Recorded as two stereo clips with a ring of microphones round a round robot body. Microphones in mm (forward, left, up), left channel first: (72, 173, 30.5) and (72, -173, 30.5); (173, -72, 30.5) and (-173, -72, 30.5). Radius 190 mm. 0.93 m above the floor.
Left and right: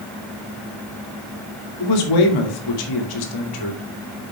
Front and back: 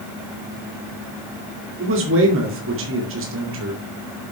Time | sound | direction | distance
1.8 | a man speaking | 120° left | 2 m